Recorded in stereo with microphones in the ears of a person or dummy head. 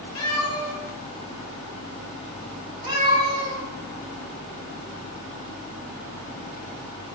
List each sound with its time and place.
0.1 s a cat meowing: 20° left (ahead or behind), 3 m; by 3.6 s 40° right (ahead or behind), 3.5 m